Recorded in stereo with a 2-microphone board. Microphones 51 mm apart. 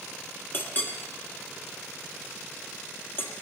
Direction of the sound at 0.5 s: 40° left (ahead or behind).